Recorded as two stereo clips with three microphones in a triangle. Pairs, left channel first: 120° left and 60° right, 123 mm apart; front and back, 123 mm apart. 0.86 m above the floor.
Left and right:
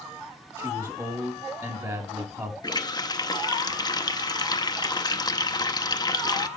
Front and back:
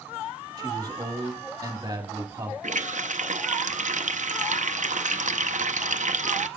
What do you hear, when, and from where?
0.6 s a man speaking: 120° right, 1.6 m
2.6 s a running tap: straight behind, 0.6 m